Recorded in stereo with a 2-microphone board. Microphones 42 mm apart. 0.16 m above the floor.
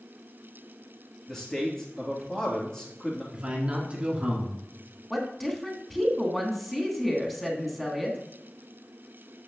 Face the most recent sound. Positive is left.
turn(degrees=5)  # may be behind; listen again after turning